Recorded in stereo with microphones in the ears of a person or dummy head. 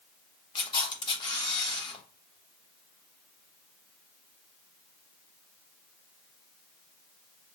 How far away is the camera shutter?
About 0.9 m.